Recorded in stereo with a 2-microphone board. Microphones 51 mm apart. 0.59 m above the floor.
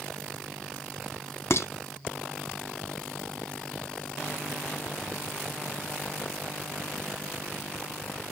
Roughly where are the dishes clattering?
Left.